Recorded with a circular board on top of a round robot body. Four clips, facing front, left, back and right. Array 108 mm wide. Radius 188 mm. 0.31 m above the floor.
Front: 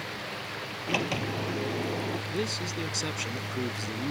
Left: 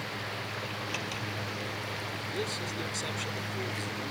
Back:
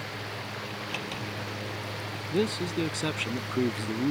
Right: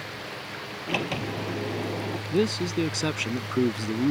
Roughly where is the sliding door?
Ahead right.